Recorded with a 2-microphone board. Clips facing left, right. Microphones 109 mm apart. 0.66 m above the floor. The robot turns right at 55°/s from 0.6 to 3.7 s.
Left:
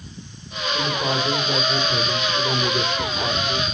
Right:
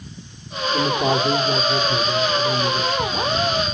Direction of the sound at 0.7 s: 90° right.